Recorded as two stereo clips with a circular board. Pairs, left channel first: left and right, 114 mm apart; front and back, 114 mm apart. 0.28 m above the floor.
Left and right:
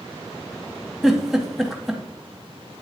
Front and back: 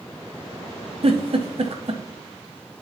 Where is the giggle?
Straight behind, 1.0 m.